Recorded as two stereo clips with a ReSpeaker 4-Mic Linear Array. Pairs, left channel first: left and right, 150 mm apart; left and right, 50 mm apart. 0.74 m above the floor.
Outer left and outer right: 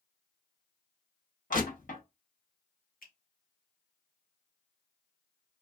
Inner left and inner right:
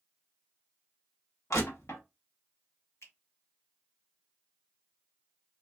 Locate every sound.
1.5 s crushing: 70° left (ahead or behind), 0.9 m
3.0 s a finger snap: 75° left (ahead or behind), 1.0 m